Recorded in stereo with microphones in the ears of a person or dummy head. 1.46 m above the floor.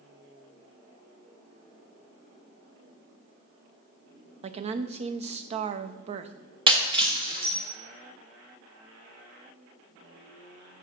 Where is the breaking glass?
30° right (ahead or behind), 1.2 m.